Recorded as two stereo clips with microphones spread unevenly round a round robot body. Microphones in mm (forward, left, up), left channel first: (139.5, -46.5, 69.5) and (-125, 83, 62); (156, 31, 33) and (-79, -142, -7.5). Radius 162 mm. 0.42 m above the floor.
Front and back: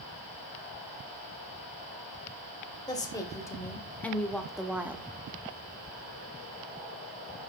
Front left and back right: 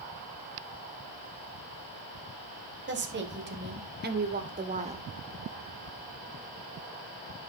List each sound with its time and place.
2.9 s a woman speaking: 105° right, 2.5 m; by 5.1 s 140° right, 1.3 m